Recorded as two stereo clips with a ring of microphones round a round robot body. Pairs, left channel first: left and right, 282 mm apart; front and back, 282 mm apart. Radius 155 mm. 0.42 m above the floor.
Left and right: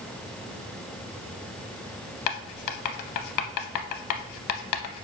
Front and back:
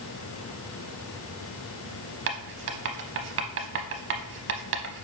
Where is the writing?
125° left, 0.5 m.